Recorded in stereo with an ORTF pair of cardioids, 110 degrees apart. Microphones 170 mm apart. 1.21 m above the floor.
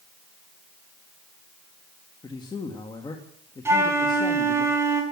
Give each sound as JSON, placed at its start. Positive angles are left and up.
{"t": 2.2, "sound": "a man speaking", "azimuth_deg": 25, "distance_m": 2.5}
{"t": 3.6, "sound": "a flute", "azimuth_deg": -15, "distance_m": 6.5}